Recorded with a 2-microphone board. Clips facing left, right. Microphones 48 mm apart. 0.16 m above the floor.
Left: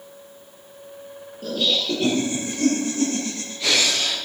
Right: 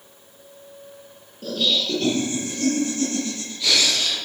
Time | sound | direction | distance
1.4 | laughter | 5° left (ahead or behind) | 3.5 m